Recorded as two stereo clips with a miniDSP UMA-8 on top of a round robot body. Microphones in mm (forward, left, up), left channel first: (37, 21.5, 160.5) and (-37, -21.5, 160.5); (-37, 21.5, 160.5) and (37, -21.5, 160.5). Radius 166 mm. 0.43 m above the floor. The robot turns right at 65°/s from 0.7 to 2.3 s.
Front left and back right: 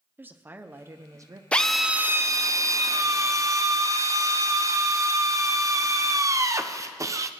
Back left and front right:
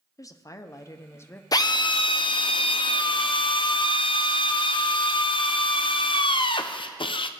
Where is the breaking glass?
No breaking glass in this recording.